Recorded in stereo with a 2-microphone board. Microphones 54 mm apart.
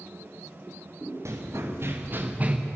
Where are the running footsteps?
60° right (ahead or behind), 3 m; by 2.6 s 25° right (ahead or behind), 1.6 m.